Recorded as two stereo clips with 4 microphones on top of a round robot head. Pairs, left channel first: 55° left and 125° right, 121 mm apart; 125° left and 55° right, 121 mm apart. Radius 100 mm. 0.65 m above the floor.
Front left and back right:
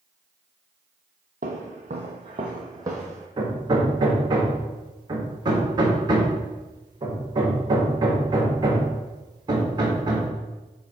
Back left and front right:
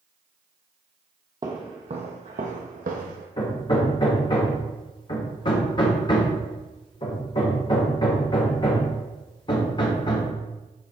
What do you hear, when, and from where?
1.4 s footsteps: 110° right, 0.9 m; by 3.3 s 60° right, 1.4 m
3.4 s hammering: straight behind, 1.6 m